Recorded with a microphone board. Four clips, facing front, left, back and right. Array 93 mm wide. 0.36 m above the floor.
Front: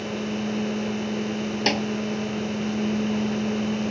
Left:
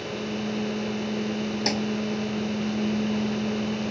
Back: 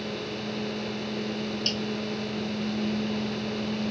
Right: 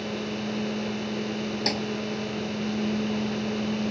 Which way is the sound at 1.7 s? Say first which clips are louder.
Left 2 dB, front 8 dB; 5° left.